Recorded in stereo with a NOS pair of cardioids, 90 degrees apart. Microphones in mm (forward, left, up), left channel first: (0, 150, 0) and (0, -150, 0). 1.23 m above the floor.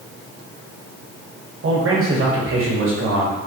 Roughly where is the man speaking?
Ahead right.